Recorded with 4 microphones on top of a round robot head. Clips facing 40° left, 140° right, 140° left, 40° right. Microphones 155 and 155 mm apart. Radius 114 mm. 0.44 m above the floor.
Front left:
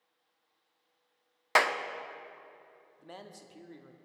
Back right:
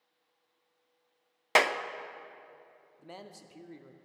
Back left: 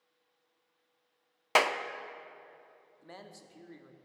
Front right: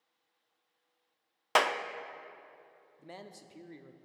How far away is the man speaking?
About 0.8 m.